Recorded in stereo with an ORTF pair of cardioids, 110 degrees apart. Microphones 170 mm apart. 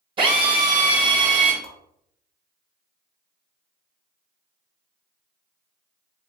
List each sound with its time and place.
0.2 s a drill: 30° right, 1.0 m
1.6 s a whoosh: 30° right, 1.0 m